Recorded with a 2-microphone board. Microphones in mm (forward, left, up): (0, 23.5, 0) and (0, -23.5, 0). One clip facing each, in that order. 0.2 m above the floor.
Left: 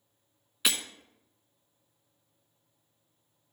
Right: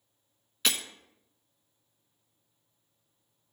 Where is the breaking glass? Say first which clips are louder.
Even; 10° left (ahead or behind), 0.8 m.